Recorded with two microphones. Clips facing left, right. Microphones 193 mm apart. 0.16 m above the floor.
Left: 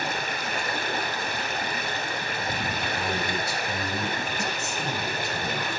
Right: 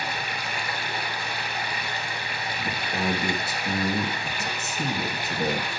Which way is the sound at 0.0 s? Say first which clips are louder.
Left 2 dB; 55° left (ahead or behind).